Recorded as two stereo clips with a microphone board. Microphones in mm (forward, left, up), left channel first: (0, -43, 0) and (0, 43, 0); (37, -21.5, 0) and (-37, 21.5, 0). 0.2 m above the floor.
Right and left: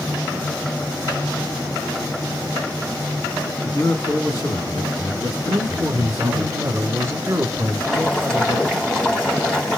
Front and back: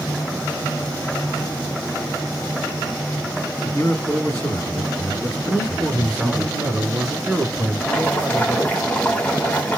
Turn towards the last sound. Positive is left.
turn(degrees=-30)